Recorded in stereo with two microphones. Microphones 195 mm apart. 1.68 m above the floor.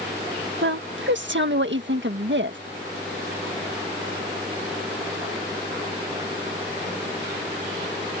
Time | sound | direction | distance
0.6 | a woman speaking | 70° right (ahead or behind) | ?